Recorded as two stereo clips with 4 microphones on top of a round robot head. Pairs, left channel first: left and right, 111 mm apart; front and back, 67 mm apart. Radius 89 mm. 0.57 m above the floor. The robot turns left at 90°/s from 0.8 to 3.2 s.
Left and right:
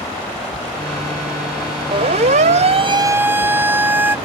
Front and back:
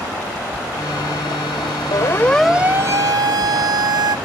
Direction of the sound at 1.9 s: 45° right.